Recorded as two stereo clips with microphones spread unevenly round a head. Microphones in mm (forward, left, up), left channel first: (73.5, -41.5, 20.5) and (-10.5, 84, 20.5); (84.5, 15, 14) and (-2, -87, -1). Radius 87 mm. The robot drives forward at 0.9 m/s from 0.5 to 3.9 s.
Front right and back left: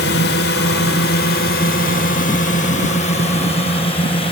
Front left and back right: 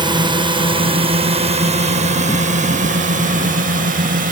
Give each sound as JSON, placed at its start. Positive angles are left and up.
{"t": 0.0, "sound": "a drone", "azimuth_deg": -75}